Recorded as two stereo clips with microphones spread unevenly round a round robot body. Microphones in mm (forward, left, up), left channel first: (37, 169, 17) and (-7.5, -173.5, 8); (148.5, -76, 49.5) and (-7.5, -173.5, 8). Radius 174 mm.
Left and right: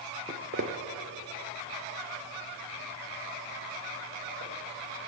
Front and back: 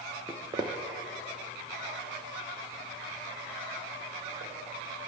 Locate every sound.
0.3 s footsteps: 30° right, 0.7 m; by 4.5 s 120° right, 3 m